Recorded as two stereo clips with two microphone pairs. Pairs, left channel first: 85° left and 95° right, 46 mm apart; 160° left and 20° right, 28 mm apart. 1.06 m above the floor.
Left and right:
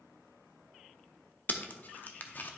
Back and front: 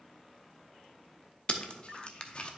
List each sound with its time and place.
1.5 s tape being pulled: 115° left, 0.6 m